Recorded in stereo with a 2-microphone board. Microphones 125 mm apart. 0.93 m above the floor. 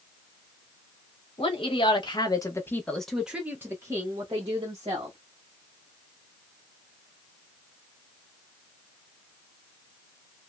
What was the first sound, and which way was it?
A woman speaking, 45° left (ahead or behind).